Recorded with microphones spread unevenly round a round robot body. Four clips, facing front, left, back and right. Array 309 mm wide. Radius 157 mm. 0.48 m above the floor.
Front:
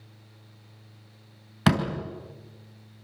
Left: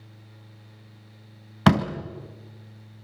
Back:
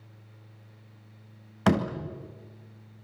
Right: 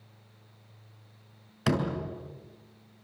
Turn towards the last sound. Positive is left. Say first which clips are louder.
# left 8 dB, even
turn(degrees=75)